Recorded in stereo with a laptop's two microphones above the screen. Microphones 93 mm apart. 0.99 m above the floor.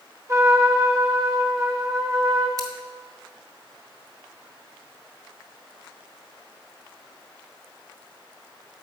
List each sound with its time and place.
0.3 s a trumpet: 35° right (ahead or behind), 0.7 m
2.6 s scissors: 40° right (ahead or behind), 0.9 m